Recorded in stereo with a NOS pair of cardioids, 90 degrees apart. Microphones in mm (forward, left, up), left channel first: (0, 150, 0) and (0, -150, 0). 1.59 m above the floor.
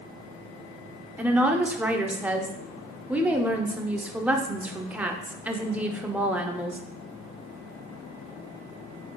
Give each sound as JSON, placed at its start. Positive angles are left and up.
{"t": 1.2, "sound": "a woman speaking", "azimuth_deg": -5, "distance_m": 0.5}